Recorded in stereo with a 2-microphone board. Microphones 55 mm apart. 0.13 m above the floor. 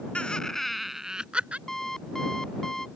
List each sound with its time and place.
0.1 s laughter: 20° left (ahead or behind); by 1.6 s 25° right (ahead or behind)
1.7 s an alarm clock: 10° left (ahead or behind)